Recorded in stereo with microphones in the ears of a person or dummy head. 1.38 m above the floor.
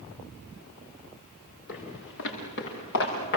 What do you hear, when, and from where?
1.7 s footsteps: 65° left (ahead or behind), 8 m; by 3.4 s 55° left (ahead or behind), 7 m